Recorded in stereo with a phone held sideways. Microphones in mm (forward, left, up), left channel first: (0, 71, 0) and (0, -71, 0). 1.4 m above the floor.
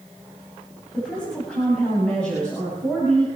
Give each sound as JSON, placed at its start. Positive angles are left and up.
{"t": 0.9, "sound": "a woman speaking", "side_deg": 5, "distance_m": 8.0}